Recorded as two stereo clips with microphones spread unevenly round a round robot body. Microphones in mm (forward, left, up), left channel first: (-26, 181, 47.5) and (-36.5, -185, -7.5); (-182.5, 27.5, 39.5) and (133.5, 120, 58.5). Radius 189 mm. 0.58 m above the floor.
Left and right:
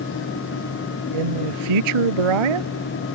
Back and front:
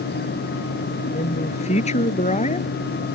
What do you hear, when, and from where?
1.1 s a man speaking: 90° right